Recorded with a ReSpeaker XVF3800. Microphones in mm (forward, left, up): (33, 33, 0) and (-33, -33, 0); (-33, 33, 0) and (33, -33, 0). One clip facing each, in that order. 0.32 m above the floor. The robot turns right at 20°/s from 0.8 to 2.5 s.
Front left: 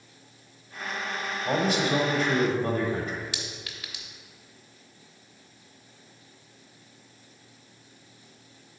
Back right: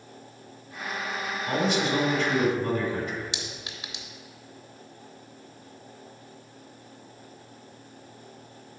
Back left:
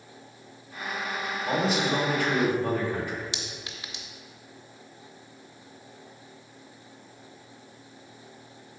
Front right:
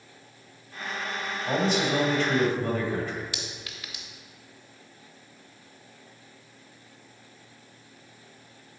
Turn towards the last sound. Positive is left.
turn(degrees=180)